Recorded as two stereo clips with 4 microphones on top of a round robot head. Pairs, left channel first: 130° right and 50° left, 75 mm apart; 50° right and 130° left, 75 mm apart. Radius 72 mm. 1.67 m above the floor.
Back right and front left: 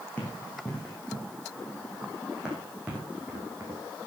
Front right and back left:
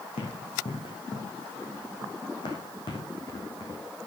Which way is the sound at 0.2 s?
55° right.